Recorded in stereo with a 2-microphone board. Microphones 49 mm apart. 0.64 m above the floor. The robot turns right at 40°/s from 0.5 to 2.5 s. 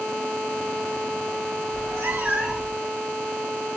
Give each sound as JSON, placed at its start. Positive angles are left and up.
{"t": 1.7, "sound": "a cat meowing", "azimuth_deg": -60, "distance_m": 0.7}